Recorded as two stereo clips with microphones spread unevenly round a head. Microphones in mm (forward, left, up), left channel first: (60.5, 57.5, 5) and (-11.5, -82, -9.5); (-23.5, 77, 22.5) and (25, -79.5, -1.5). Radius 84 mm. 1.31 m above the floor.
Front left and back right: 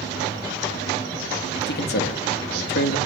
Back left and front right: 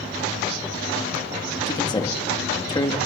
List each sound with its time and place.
1.7 s a man speaking: 40° left, 2.5 m